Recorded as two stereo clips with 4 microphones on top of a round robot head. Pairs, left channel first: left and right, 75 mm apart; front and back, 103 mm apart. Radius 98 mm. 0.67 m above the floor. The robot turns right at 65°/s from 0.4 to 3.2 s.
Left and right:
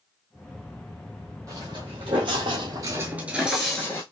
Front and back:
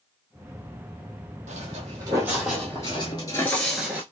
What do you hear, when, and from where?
1.5 s footsteps: 155° right, 1.5 m; by 4.0 s 130° left, 0.6 m